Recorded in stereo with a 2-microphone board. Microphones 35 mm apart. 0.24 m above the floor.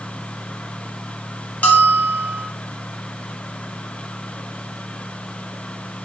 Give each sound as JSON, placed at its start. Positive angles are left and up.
{"t": 1.6, "sound": "a bell", "side_deg": 45, "distance_m": 0.8}